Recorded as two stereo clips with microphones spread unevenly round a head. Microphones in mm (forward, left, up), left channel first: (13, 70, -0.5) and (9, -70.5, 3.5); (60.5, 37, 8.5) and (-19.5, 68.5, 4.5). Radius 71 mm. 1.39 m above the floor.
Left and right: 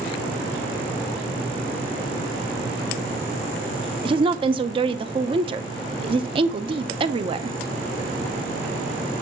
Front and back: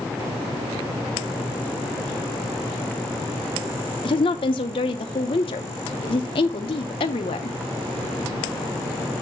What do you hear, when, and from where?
4.0 s a woman speaking: 40° right, 0.6 m